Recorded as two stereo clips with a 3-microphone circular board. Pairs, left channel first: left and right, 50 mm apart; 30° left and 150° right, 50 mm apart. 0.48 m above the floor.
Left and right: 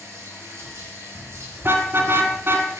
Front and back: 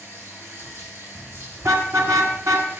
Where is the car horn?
135° right, 2.5 m.